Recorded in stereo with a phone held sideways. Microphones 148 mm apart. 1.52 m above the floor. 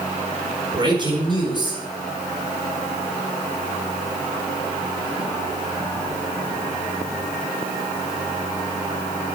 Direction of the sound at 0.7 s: 30° right (ahead or behind).